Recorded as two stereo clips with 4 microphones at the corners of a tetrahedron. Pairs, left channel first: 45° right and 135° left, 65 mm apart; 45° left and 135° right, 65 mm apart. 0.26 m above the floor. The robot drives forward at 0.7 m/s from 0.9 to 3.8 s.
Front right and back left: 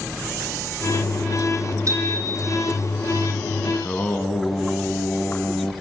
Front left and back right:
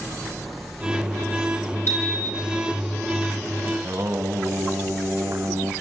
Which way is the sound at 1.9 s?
95° left.